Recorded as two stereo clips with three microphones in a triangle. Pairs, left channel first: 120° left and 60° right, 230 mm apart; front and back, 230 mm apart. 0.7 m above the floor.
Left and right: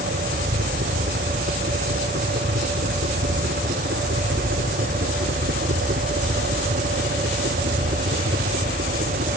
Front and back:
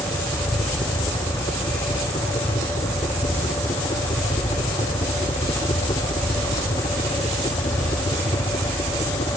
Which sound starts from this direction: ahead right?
A helicopter, at 0.0 s.